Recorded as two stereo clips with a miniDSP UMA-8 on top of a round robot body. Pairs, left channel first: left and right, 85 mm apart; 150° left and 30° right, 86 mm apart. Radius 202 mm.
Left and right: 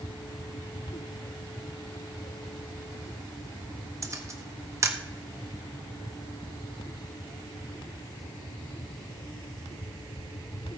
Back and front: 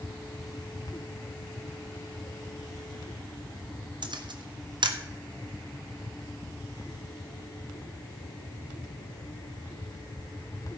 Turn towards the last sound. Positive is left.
turn(degrees=-40)